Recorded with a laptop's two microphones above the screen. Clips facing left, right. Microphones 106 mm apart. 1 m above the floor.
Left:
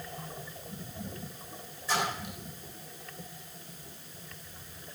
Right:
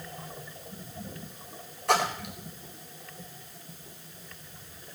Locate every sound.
1.9 s a splash: 65° right (ahead or behind), 4 m